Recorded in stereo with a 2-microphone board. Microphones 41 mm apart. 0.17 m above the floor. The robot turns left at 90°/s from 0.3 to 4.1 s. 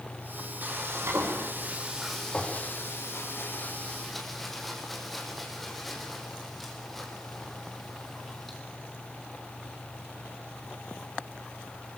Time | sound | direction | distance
0.6 | frying | 40° right | 4.5 m